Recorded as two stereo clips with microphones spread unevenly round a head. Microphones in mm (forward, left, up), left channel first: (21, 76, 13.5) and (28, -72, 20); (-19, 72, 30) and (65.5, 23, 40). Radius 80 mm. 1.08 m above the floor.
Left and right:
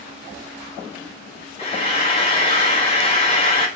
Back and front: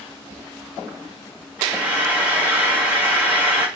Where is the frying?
40° left, 0.8 m.